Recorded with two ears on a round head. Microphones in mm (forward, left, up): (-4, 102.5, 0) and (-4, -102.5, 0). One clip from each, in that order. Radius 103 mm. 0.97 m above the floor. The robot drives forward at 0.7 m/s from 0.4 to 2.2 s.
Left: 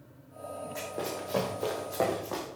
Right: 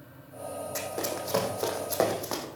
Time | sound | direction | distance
0.8 | running footsteps | 60° right (ahead or behind) | 3.5 m